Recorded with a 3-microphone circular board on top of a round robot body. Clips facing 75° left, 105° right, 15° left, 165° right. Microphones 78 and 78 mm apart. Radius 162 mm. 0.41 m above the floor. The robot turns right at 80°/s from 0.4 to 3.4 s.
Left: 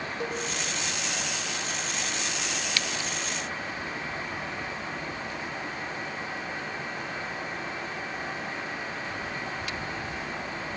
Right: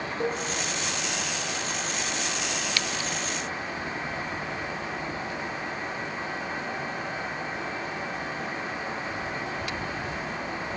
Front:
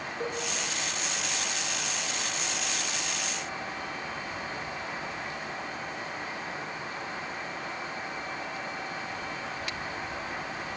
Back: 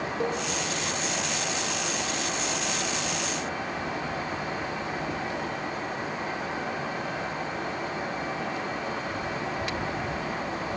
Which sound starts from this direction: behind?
A cowbell, at 0.2 s.